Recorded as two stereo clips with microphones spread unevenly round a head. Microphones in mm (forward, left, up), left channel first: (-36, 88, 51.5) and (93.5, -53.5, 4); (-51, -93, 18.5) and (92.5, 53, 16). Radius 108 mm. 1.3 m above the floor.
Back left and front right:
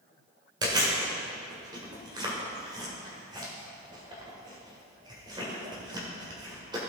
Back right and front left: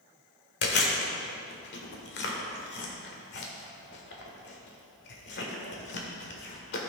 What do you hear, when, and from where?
0.6 s chewing: 125° right, 1.4 m